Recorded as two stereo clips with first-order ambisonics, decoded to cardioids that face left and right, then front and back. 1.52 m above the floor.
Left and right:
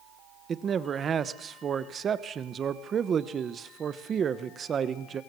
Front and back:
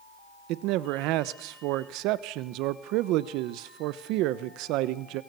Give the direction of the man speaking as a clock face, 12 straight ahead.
5 o'clock.